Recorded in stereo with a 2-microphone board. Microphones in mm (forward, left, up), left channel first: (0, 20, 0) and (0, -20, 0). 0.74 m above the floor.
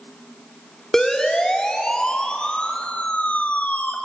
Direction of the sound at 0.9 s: 10° left (ahead or behind).